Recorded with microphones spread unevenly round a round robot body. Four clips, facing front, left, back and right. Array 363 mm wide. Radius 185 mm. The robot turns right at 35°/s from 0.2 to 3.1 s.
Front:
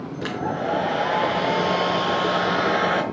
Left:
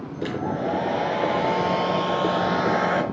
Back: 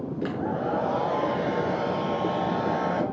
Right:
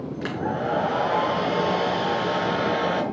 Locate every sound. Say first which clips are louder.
0.2 s a hair dryer: left 1 dB, front 3 dB; 70° right, 5 m; by 3.0 s 30° left, 5 m